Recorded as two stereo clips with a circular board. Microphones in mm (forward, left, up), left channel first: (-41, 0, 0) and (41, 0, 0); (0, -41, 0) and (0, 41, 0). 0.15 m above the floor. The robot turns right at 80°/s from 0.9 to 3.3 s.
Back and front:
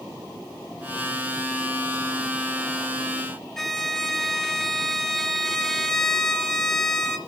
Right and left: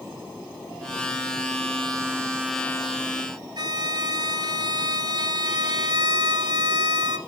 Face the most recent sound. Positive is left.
turn(degrees=95)